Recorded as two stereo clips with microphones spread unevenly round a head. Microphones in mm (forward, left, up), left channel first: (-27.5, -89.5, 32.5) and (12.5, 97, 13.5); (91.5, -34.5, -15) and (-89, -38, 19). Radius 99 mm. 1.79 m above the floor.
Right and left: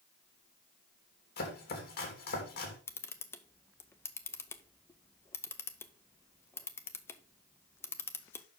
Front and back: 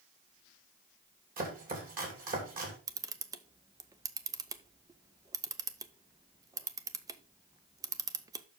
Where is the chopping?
140° right, 2.5 m.